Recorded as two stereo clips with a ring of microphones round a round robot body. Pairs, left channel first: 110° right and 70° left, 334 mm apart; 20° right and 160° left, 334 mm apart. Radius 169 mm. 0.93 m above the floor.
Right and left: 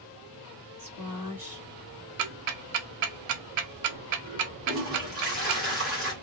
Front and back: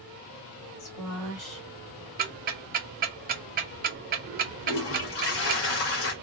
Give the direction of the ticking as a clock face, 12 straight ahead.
9 o'clock.